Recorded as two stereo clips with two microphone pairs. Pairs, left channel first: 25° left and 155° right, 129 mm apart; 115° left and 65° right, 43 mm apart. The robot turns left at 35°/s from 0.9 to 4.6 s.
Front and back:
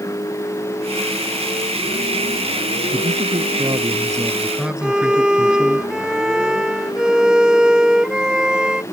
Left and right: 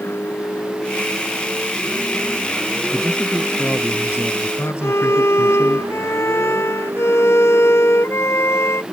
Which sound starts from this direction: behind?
A man speaking, at 2.9 s.